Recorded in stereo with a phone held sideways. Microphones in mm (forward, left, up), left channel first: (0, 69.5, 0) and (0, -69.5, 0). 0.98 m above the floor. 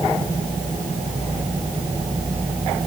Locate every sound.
Only background noise.